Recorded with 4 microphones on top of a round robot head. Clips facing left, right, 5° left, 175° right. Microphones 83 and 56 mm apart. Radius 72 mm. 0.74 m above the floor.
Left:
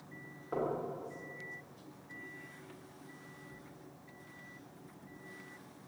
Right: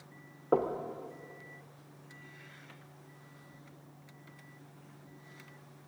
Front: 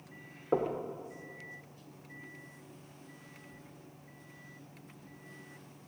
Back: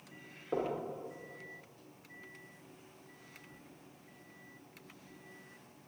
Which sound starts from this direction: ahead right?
Knocking, at 0.5 s.